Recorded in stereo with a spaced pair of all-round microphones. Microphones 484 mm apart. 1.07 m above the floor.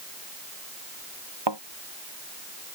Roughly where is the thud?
Right.